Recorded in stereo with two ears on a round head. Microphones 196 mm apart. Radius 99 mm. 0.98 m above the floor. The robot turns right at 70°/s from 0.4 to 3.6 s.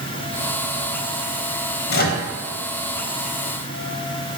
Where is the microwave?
50° left (ahead or behind), 0.6 m; by 2.2 s 30° left (ahead or behind), 0.6 m.